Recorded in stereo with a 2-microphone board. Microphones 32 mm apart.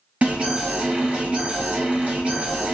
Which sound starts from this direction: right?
An alarm, at 0.2 s.